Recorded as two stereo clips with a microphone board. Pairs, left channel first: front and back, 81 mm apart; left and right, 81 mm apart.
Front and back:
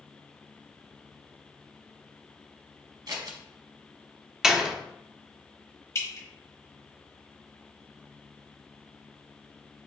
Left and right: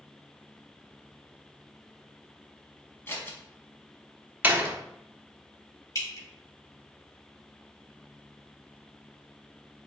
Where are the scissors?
150° left, 1.1 m.